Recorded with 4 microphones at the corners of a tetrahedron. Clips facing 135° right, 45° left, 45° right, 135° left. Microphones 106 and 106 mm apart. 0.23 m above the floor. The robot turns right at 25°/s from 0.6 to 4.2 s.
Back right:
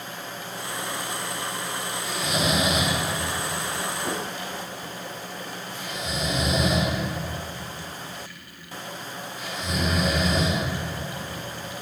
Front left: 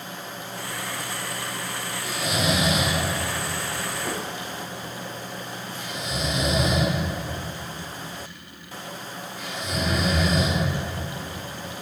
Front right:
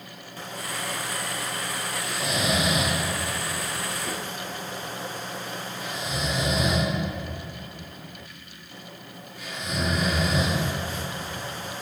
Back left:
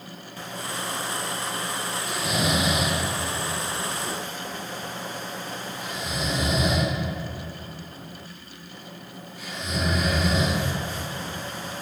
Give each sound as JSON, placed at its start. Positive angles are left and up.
{"t": 2.0, "sound": "snoring", "azimuth_deg": 115, "distance_m": 1.6}